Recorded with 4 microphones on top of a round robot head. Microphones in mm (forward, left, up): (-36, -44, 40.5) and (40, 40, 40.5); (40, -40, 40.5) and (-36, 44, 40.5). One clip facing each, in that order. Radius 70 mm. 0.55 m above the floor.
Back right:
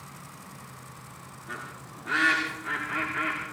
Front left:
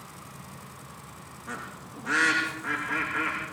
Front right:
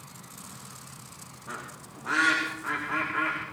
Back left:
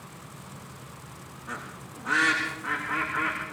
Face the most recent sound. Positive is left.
turn(degrees=40)